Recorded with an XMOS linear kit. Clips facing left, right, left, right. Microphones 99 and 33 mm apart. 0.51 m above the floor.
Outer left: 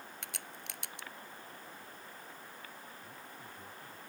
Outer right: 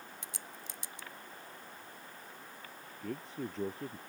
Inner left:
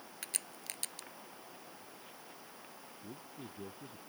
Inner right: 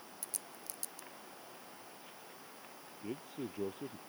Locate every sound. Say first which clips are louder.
0.2 s a crack: even, inner left 8 dB; 65° left (ahead or behind)
3.0 s a man speaking: outer right 10 dB, inner right 8 dB; 80° right